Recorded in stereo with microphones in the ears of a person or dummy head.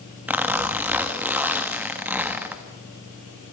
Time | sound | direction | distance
0.3 | a zipper | 5° right (ahead or behind) | 1.4 m